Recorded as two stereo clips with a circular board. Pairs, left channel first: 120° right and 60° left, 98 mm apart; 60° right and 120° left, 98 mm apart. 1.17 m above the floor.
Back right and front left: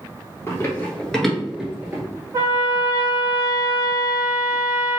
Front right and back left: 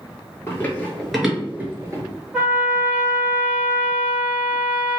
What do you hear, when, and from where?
0.5 s running footsteps: 100° right, 1.3 m; by 2.0 s 105° left, 1.3 m
2.3 s a trumpet: 45° left, 1.1 m